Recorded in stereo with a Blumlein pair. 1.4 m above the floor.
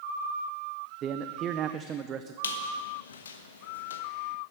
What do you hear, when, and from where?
1.0 s a man speaking: 30° right, 0.5 m
2.4 s a squeak: 70° left, 1.1 m